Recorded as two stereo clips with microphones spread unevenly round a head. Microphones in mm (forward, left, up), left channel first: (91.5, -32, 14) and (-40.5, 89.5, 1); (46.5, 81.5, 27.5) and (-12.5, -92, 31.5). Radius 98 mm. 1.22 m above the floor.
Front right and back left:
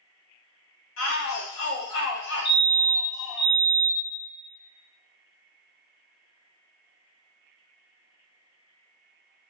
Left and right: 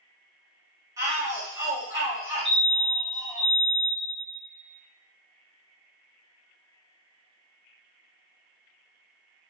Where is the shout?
35° right, 1.7 m.